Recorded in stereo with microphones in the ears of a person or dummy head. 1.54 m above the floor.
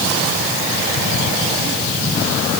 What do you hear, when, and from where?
Only background noise.